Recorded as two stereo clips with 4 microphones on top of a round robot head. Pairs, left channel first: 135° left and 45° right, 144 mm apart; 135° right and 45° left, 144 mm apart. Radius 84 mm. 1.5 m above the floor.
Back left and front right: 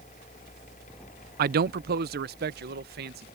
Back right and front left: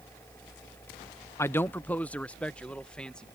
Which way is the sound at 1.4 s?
65° right.